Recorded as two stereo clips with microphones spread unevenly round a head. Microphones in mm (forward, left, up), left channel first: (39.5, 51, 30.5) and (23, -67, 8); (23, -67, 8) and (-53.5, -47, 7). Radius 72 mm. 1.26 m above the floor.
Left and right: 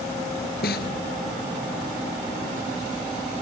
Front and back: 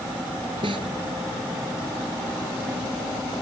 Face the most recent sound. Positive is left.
turn(degrees=105)